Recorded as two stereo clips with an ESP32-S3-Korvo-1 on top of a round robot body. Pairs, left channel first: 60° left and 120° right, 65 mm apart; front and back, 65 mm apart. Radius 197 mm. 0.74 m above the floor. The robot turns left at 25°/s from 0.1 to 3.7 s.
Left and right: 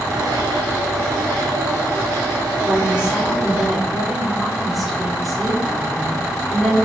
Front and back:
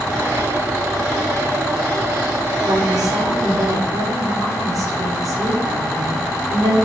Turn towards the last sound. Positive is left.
turn(degrees=150)